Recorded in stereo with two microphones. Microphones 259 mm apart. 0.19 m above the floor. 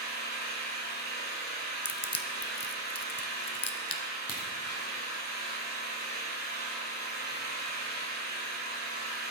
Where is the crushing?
60° left (ahead or behind), 0.6 m.